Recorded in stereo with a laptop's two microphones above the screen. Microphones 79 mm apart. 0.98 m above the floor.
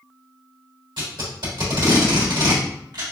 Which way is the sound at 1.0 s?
75° right (ahead or behind).